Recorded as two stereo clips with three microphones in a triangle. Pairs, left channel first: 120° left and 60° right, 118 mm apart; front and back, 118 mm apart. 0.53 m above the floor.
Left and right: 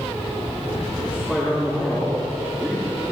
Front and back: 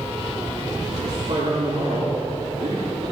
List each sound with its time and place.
1.0 s a man speaking: 140° right, 6.5 m